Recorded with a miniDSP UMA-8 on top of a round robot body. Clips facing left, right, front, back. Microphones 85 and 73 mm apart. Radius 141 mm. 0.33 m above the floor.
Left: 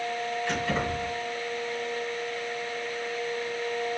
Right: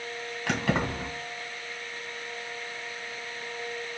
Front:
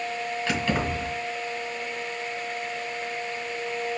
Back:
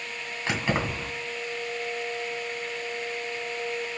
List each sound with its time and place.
0.5 s keys jangling: 115° right, 2 m